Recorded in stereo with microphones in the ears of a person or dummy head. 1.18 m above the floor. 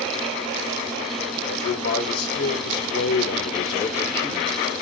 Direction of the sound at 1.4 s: 70° left (ahead or behind).